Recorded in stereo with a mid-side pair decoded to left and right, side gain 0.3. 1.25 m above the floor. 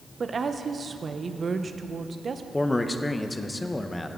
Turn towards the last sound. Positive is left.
turn(degrees=20)